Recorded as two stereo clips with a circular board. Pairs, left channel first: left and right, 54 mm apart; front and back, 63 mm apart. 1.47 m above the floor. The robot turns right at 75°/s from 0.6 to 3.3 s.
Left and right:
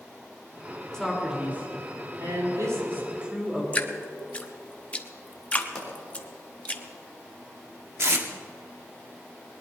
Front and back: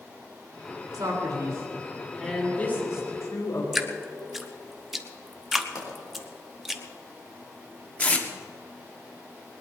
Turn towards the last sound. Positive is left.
turn(degrees=-60)